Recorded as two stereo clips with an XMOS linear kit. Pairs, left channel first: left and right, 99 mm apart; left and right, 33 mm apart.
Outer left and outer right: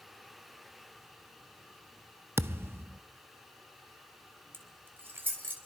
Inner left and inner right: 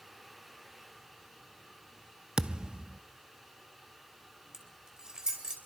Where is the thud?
25° right (ahead or behind), 0.6 m.